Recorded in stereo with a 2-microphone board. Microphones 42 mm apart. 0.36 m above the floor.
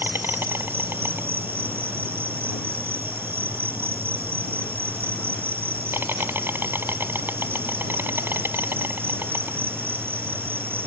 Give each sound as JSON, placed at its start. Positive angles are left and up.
{"t": 0.0, "sound": "an insect", "side_deg": -60}